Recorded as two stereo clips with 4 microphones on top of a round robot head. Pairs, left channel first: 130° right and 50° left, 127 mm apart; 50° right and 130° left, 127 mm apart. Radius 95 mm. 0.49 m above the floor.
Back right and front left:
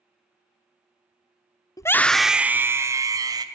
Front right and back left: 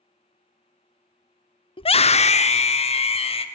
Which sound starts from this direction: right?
A scream, at 1.8 s.